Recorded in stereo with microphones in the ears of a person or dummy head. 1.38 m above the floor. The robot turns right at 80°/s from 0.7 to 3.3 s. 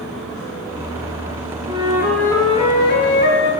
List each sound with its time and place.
1.7 s a flute: 35° right, 6 m; by 3.5 s 95° left, 6 m